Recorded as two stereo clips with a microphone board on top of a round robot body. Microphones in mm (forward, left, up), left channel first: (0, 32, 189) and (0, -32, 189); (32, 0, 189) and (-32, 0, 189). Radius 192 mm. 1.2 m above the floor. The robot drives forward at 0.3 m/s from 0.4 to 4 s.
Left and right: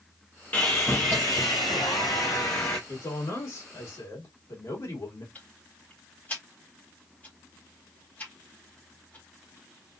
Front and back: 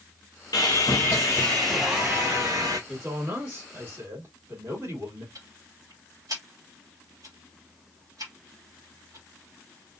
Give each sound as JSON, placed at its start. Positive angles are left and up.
{"t": 0.5, "sound": "sawing", "azimuth_deg": 25, "distance_m": 0.6}
{"t": 2.9, "sound": "a man speaking", "azimuth_deg": 120, "distance_m": 2.5}
{"t": 5.3, "sound": "ticking", "azimuth_deg": 155, "distance_m": 2.5}